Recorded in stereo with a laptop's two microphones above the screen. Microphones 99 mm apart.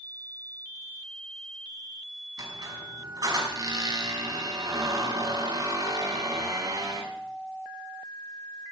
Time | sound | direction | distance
2.4 | a squeak | 45° right (ahead or behind) | 5 m